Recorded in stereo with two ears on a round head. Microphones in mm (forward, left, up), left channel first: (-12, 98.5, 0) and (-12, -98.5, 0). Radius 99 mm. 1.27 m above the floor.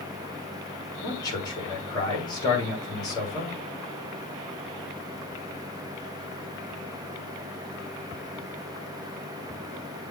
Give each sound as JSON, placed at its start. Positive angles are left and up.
{"t": 1.0, "sound": "a man speaking", "side_deg": 20, "distance_m": 3.0}